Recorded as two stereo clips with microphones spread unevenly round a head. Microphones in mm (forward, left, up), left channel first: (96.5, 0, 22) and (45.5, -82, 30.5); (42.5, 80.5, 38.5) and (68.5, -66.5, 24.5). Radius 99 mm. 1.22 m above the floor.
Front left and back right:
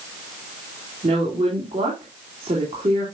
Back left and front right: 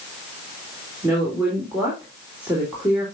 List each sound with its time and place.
1.0 s a woman speaking: 160° right, 2.5 m